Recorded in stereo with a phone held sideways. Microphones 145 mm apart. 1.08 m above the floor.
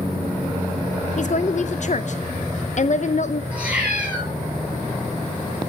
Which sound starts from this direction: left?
A woman speaking, at 1.2 s.